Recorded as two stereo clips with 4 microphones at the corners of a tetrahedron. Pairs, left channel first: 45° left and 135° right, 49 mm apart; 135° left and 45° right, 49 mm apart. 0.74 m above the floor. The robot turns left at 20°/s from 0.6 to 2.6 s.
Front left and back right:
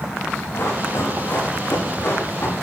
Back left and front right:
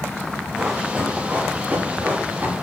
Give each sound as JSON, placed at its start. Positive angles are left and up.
{"t": 0.5, "sound": "running footsteps", "azimuth_deg": 25, "distance_m": 6.5}